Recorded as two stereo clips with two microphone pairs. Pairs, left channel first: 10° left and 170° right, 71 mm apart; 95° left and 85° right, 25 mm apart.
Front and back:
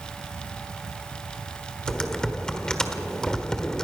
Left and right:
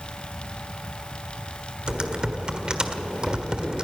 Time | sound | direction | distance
1.9 | typing on a keyboard | 65° right | 1.6 m